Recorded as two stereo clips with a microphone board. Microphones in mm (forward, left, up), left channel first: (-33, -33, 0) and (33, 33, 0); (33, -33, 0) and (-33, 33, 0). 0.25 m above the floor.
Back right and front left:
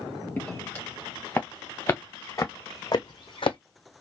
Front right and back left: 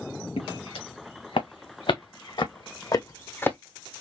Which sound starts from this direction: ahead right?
Footsteps, at 0.4 s.